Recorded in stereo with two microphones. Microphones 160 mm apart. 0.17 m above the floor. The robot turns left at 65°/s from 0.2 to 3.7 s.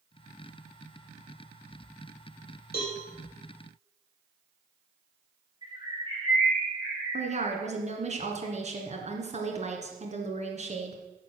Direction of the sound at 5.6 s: 30° right (ahead or behind).